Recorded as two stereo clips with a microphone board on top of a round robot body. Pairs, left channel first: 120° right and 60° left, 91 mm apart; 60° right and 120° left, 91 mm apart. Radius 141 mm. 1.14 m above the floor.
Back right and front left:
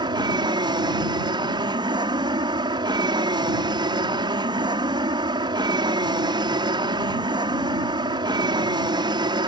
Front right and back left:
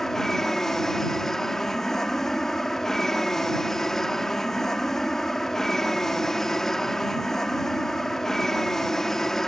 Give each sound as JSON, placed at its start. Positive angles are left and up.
{"t": 0.0, "sound": "an aircraft", "azimuth_deg": 25}